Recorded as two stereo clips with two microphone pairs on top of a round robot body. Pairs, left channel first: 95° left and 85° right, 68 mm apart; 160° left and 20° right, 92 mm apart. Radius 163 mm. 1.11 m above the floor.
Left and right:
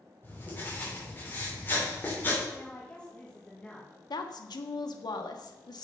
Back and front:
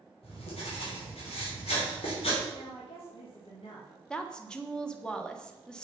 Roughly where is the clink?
No clink in this recording.